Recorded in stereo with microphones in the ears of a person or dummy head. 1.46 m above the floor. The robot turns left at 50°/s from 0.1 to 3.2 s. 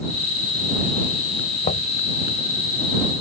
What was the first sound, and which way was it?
Knocking, 35° left (ahead or behind).